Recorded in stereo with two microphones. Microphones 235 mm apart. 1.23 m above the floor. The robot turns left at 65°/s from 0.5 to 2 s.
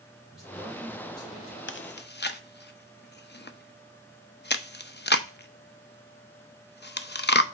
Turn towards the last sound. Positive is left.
turn(degrees=45)  # may be behind; listen again after turning